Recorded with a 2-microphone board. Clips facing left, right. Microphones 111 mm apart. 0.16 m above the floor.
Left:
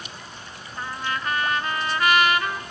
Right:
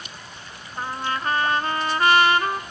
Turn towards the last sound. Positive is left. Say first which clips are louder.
# right 2 dB
turn(degrees=-35)  # may be behind; listen again after turning